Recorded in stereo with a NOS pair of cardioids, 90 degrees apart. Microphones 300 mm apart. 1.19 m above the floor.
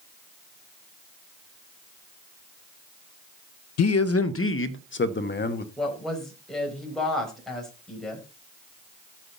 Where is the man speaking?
65° left, 0.6 m; by 5.7 s 35° left, 1.6 m.